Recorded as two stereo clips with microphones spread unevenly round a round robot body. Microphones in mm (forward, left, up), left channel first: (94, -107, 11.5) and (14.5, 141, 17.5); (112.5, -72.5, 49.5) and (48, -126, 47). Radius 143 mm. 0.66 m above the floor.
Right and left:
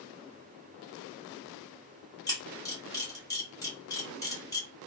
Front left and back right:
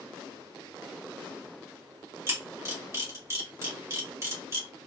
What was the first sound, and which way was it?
A camera shutter, 135° right.